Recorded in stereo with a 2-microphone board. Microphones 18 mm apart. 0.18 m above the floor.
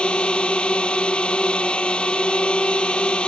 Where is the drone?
65° left (ahead or behind).